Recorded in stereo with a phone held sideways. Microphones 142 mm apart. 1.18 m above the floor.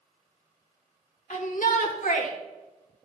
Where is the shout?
65° left (ahead or behind), 1.9 m; by 2.3 s 70° left (ahead or behind), 2.5 m.